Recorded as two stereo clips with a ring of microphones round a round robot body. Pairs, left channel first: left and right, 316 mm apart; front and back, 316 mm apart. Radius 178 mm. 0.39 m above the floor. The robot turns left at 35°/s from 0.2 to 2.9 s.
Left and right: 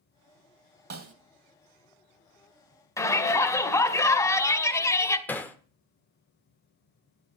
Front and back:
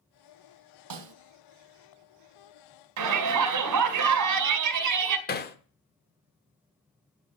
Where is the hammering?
10° left, 1.2 m.